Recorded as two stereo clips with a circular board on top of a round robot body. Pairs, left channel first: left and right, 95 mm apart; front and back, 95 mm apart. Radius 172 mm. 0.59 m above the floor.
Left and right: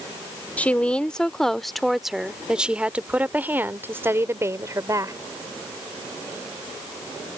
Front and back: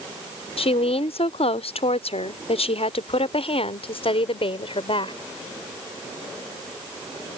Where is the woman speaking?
15° left; by 5.2 s 30° right.